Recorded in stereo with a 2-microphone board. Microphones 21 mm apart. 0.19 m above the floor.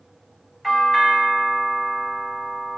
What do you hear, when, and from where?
0.6 s a doorbell: 10° left (ahead or behind), 1.4 m